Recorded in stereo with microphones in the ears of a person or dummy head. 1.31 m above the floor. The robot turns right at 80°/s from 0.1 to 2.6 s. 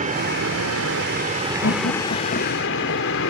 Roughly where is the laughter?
Left.